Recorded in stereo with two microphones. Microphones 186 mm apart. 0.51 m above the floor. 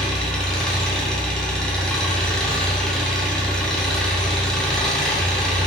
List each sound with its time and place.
0.0 s an engine running: 5° left (ahead or behind), 3 m